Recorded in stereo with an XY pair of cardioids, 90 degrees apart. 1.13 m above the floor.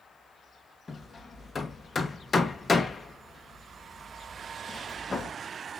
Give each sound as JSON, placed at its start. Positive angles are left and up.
{"t": 0.9, "sound": "hammering", "azimuth_deg": 35, "distance_m": 0.7}